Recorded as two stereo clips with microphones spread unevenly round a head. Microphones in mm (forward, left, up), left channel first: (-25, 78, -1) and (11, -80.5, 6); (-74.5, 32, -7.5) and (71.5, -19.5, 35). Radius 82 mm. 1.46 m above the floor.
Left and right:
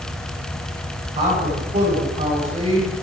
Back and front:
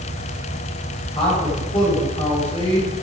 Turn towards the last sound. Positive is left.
turn(degrees=-135)